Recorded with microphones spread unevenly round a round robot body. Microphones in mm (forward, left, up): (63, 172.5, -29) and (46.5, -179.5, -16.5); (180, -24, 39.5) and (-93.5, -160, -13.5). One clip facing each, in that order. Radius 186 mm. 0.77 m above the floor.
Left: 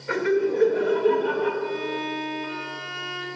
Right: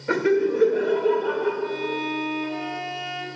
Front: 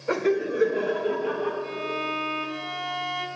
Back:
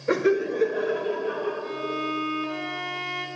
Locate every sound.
0.1 s laughter: 110° right, 0.7 m; by 1.5 s 45° left, 0.9 m
1.6 s a violin: 55° left, 0.9 m